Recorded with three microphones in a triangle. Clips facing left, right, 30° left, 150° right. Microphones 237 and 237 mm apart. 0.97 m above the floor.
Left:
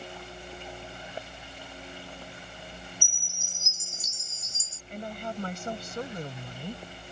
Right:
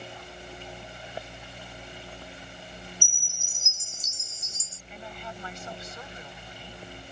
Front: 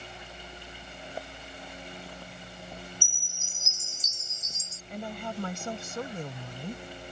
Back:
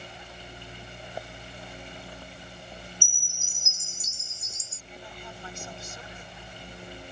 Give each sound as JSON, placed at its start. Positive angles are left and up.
{"t": 3.0, "sound": "a chime", "azimuth_deg": 75}
{"t": 4.9, "sound": "a woman speaking", "azimuth_deg": 55}